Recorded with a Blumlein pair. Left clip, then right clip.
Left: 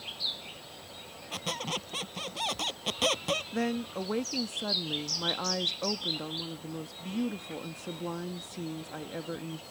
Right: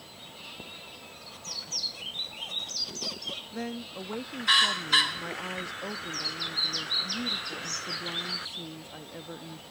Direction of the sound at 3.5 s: 15° left.